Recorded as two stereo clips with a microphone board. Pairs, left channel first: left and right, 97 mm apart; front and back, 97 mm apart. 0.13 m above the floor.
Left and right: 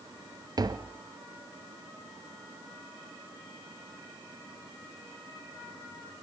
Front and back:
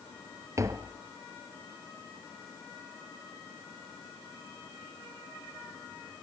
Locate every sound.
0.6 s tapping: 130° right, 1.0 m